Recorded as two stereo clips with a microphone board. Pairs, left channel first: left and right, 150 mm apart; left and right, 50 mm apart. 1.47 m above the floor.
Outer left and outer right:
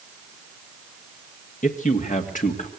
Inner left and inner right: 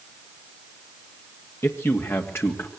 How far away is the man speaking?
About 2 m.